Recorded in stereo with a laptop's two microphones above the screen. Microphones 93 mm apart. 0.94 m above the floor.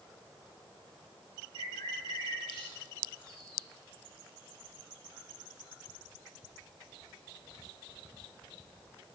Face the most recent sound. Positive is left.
turn(degrees=60)  # may be behind; listen again after turning